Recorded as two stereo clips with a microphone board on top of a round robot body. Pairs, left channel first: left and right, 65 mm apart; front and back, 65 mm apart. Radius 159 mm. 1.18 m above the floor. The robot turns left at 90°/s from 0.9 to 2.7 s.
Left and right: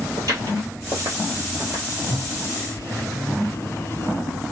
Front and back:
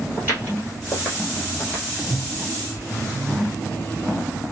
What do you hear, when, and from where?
0.2 s footsteps: 125° right, 1.4 m; by 1.8 s 95° right, 1.2 m
2.1 s a microwave: 100° left, 1.4 m; by 4.4 s 45° left, 1.4 m